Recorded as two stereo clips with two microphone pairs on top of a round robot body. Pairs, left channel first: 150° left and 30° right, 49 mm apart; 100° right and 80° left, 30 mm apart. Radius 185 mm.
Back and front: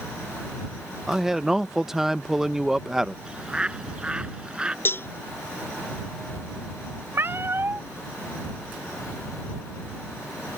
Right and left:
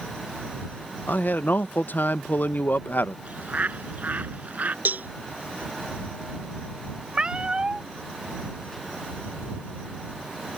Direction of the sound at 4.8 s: 110° left.